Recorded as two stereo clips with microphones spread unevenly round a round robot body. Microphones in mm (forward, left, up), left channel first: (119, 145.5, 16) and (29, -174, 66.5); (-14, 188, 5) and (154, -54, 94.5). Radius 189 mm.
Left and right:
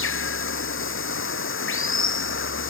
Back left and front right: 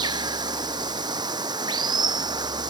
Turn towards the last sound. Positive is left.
turn(degrees=20)